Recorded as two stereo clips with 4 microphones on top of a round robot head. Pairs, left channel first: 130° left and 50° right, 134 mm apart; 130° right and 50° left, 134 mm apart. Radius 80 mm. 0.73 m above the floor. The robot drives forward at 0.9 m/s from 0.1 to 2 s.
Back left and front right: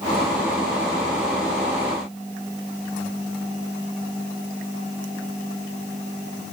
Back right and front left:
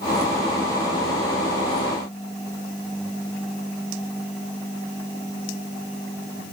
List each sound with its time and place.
Only background noise.